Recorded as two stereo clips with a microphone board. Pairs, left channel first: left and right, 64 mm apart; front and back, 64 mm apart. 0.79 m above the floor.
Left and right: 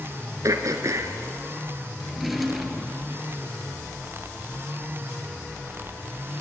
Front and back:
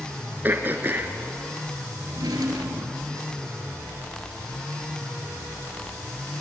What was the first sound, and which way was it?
Throat clearing, 125° right.